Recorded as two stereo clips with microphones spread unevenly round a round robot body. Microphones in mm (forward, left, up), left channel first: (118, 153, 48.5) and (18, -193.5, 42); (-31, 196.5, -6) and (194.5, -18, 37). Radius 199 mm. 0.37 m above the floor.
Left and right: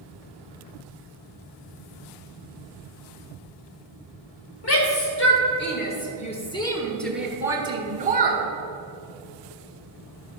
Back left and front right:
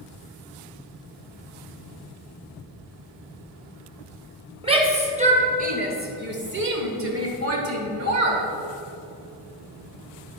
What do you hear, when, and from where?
4.6 s a shout: 35° left, 2.5 m; by 8.4 s 60° right, 1.7 m